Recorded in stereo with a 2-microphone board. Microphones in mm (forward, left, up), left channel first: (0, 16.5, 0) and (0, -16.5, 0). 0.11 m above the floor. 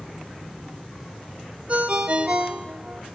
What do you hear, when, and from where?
1.7 s a ringtone: 40° right (ahead or behind), 0.7 m